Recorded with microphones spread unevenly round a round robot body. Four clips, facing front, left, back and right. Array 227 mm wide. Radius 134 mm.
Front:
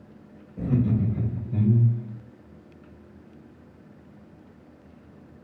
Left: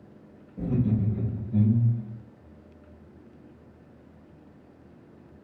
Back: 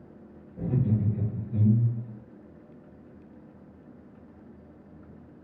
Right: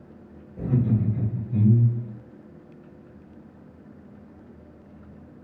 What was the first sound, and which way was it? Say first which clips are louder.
Laughter: right 2 dB, front 4 dB; 55° right.